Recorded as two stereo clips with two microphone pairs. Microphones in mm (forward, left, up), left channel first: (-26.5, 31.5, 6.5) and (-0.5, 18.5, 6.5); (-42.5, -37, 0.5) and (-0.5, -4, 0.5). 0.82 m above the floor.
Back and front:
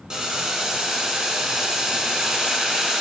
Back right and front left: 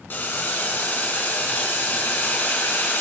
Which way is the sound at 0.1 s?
95° right.